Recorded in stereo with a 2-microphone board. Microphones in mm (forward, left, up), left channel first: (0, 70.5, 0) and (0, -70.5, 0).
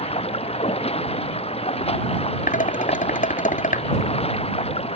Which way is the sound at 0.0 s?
45° left (ahead or behind).